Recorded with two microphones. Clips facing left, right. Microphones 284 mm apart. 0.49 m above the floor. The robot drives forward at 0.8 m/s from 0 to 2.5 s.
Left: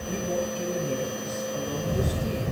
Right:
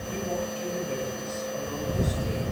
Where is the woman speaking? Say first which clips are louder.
Left 3 dB; 45° left (ahead or behind), 8.5 m; by 2.4 s 35° left (ahead or behind), 10 m.